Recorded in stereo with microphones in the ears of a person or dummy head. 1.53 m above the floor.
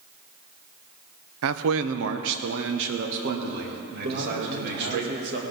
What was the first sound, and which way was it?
A man speaking, 75° right (ahead or behind).